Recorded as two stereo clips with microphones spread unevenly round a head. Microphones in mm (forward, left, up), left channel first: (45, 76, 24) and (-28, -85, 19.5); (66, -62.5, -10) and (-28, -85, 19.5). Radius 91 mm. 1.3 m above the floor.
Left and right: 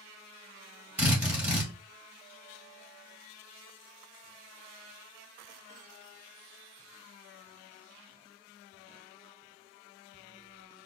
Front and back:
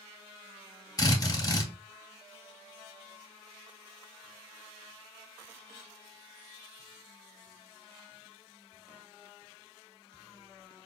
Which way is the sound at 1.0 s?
30° right.